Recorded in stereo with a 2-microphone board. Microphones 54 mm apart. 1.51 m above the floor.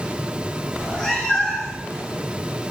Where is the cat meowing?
10° left (ahead or behind), 0.9 m; by 1.8 s 5° right (ahead or behind), 1.2 m.